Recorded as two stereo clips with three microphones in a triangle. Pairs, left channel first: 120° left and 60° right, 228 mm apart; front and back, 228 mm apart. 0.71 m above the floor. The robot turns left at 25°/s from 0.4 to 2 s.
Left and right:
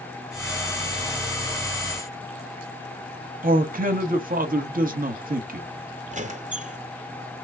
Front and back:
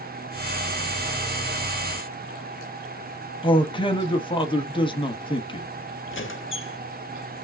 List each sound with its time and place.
3.4 s a man speaking: 55° right, 0.7 m
6.1 s a squeak: 5° right, 0.6 m